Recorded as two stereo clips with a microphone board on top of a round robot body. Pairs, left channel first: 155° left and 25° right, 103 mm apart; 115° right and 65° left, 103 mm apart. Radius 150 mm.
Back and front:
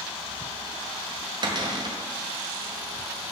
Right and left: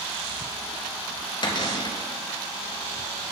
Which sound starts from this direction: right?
A cupboard door, at 1.4 s.